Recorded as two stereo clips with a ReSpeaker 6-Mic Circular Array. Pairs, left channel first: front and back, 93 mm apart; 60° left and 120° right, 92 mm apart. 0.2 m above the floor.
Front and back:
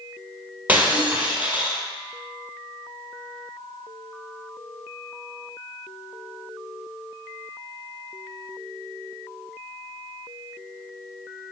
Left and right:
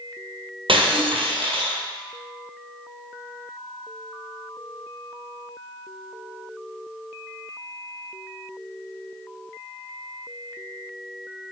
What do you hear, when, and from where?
0.7 s breaking glass: 110° right, 1.5 m